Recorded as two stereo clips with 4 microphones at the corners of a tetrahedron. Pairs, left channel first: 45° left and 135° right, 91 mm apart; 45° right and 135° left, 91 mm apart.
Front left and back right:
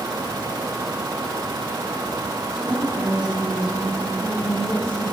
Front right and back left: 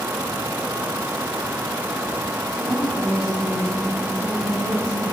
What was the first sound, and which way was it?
A woman speaking, straight behind.